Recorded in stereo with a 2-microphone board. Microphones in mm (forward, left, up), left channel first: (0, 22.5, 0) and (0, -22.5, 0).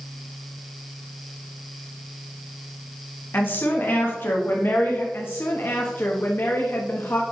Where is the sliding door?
I don't hear a sliding door.